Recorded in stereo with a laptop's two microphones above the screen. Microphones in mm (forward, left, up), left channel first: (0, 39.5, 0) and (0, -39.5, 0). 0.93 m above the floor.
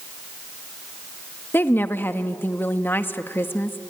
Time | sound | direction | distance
1.5 | a woman speaking | 25° left (ahead or behind) | 1.4 m